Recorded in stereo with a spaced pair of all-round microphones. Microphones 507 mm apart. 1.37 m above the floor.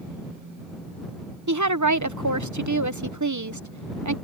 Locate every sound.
1.5 s a woman speaking: 35° right (ahead or behind)